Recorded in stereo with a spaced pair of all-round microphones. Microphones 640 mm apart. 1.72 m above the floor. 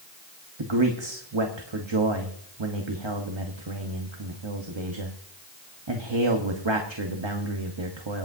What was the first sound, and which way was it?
A man speaking, 45° right (ahead or behind).